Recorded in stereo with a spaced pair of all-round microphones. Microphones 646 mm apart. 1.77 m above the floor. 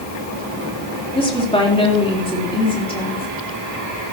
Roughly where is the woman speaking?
Centre.